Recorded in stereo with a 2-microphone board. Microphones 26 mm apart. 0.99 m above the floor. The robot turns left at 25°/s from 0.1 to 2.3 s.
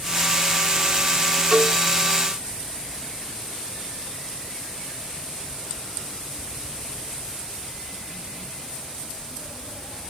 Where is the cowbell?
10° right (ahead or behind), 2.5 m; by 1.8 s 15° right (ahead or behind), 2.5 m.